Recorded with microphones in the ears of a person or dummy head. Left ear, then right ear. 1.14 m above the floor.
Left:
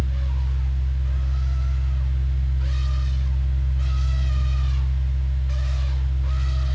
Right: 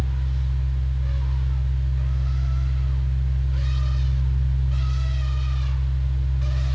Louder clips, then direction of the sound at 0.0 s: Even; 15° left (ahead or behind).